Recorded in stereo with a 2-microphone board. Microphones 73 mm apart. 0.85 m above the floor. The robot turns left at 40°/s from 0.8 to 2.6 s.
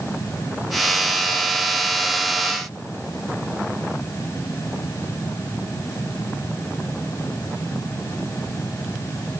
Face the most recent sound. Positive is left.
No sound to turn to.